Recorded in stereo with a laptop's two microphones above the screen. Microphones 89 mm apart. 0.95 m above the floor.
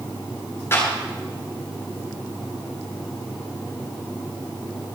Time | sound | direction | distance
0.7 | a clap | 30° left (ahead or behind) | 9.5 m